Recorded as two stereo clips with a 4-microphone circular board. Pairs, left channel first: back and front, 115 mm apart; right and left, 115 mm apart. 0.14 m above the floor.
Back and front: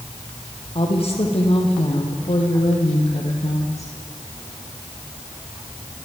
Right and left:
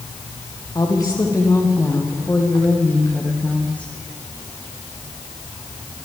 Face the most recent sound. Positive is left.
turn(degrees=-170)